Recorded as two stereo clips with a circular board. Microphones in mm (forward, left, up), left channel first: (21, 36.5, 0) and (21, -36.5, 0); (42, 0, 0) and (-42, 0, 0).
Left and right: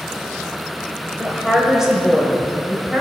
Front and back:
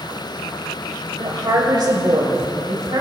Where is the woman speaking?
175° right, 2 m.